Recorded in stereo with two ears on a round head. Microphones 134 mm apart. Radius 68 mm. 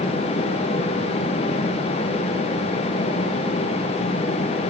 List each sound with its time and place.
Only background noise.